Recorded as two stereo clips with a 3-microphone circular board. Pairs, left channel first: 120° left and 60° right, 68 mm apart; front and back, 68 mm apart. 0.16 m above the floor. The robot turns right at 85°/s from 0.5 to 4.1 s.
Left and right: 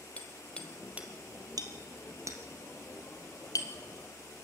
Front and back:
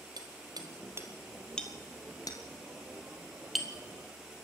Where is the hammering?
170° right, 2.0 m; by 4.5 s 135° left, 2.0 m.